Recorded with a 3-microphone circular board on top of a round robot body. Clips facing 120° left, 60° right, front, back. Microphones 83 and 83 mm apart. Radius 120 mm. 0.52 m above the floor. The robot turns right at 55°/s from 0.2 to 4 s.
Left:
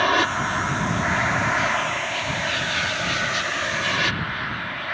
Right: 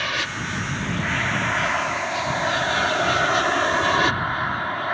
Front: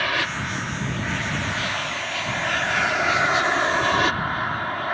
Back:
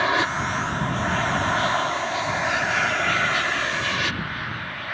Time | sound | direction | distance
0.0 | an aircraft | 125° left | ?